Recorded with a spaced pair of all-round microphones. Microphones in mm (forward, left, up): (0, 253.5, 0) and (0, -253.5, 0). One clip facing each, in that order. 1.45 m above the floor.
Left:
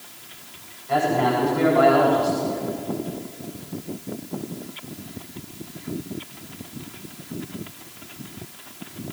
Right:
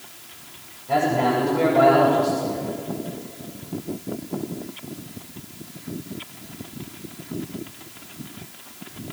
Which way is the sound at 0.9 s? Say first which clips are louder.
Even; 60° right (ahead or behind).